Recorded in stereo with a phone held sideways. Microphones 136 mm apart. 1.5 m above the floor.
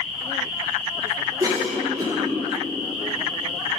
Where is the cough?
25° right (ahead or behind), 1.2 m.